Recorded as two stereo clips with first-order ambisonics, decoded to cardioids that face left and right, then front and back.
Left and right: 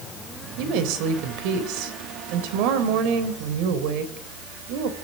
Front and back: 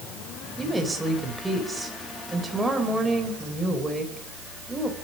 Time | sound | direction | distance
0.6 | a woman speaking | 95° right | 3.5 m